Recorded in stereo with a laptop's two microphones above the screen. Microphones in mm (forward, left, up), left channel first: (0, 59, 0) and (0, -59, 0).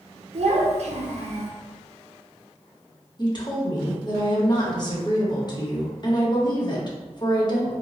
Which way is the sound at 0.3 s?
70° right (ahead or behind).